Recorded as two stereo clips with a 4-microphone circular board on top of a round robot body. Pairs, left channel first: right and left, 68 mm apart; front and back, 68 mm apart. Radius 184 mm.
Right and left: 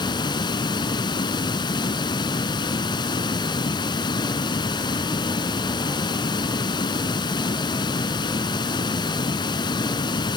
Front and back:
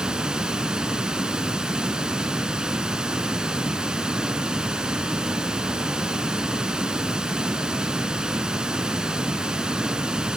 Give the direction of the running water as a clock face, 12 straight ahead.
3 o'clock.